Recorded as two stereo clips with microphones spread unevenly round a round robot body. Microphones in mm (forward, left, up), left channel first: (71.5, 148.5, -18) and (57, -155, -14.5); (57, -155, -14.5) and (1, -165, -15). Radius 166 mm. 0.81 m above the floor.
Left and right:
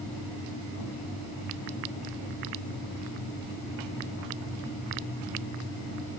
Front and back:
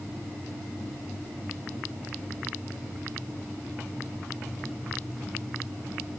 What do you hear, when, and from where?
Only background noise.